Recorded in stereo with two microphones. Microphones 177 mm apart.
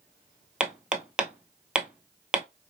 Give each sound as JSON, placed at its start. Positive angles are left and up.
{"t": 0.6, "sound": "hammering", "side_deg": -5, "distance_m": 0.7}